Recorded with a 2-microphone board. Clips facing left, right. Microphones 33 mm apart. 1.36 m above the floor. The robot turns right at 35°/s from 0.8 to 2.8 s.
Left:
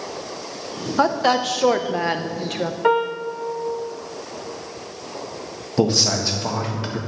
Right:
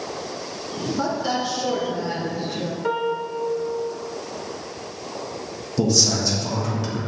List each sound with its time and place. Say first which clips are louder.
1.0 s a woman speaking: left 7 dB; 50° left, 0.8 m; by 2.7 s 110° left, 0.8 m
2.8 s a piano: left 5 dB; 40° left (ahead or behind), 0.6 m
5.8 s a man speaking: left 2 dB; 40° left (ahead or behind), 1.5 m